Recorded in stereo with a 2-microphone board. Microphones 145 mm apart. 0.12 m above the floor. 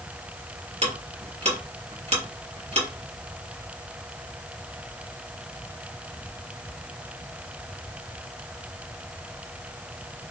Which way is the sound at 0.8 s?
50° right (ahead or behind).